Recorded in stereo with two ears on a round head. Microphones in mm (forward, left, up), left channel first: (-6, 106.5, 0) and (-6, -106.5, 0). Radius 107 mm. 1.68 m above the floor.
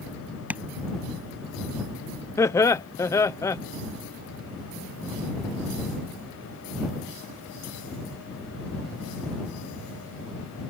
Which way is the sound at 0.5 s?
5° right (ahead or behind).